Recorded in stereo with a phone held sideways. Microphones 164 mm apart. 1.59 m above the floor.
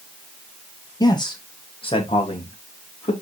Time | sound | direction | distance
1.0 | a man speaking | 25° left (ahead or behind) | 2.0 m